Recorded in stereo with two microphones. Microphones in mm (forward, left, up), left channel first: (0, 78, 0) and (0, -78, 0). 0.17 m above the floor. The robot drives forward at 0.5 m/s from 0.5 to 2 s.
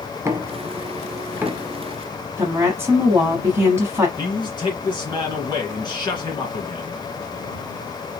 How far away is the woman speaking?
About 1.2 m.